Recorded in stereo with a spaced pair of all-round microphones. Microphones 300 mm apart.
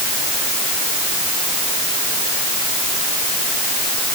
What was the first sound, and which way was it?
Only background noise.